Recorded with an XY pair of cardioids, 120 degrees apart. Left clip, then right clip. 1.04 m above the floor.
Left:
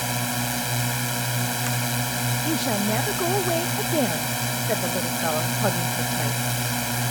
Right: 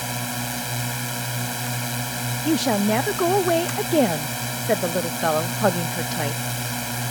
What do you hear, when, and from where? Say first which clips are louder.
0.0 s a drone: left 2 dB; 15° left
2.5 s a woman speaking: right 6 dB; 25° right